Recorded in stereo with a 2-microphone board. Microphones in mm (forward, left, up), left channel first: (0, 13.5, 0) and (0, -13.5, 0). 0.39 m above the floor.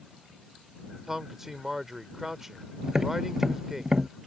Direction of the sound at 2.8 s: 20° right (ahead or behind).